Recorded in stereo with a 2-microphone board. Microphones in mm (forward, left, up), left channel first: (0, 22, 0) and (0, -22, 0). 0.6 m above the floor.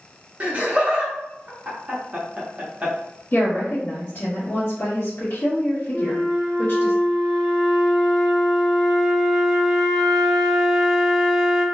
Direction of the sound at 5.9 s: 5° right (ahead or behind).